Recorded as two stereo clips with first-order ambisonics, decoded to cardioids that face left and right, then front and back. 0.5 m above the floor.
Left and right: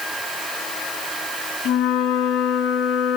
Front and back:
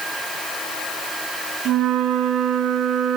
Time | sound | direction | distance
1.6 | a flute | 125° left | 4.5 m